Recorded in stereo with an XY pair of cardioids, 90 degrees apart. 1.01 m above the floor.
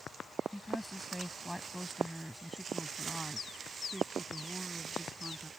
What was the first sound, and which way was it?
A woman speaking, 5° left.